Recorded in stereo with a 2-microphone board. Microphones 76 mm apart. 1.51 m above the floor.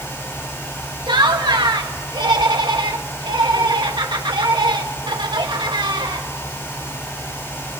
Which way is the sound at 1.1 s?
85° right.